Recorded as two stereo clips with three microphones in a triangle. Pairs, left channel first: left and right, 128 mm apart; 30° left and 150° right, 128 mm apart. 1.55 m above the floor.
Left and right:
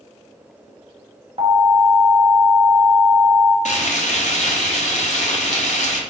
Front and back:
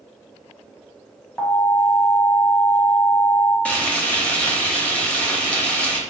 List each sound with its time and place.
1.4 s an alarm: 55° right, 1.4 m
3.6 s frying: 110° left, 0.7 m